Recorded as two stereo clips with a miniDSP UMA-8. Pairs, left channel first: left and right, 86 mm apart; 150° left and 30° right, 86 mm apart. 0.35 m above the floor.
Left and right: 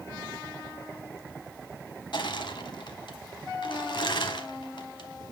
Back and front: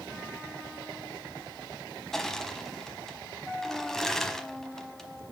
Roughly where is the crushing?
Ahead left.